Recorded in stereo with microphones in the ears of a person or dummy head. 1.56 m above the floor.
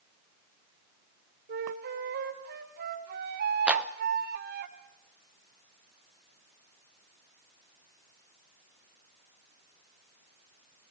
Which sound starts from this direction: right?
A flute, at 1.5 s.